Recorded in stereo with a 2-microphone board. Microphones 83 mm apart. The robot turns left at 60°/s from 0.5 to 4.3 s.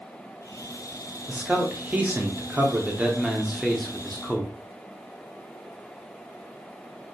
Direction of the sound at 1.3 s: 10° right (ahead or behind).